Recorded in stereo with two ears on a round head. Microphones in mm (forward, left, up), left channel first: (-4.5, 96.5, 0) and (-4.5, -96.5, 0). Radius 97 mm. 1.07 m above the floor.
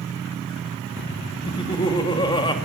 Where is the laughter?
20° left (ahead or behind), 2 m.